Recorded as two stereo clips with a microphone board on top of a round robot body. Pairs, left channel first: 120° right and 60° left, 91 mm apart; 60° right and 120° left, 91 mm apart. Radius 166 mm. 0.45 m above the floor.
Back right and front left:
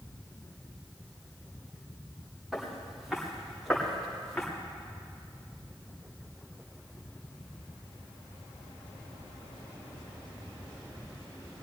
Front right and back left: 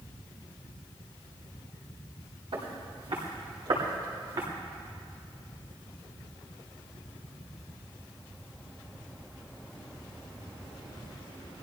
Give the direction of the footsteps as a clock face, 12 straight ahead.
7 o'clock.